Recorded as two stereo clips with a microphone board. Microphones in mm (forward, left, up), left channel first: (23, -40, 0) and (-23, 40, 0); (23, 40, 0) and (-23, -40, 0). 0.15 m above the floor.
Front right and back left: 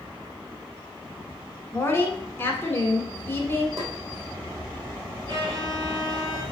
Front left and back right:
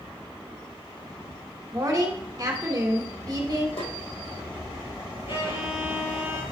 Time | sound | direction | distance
1.7 | a woman speaking | 110° right | 1.6 m
3.8 | a snare drum | 70° left | 3.5 m
5.3 | a violin | 80° left | 2 m